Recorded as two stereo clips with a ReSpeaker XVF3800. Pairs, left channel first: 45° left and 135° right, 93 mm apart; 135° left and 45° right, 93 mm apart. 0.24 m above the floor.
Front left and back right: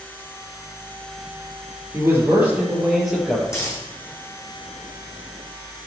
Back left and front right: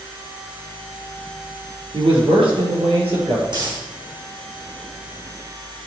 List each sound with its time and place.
1.9 s a man speaking: 70° right, 4.5 m; by 3.4 s 40° right, 4.5 m
3.5 s a dropped coin: 10° right, 5.5 m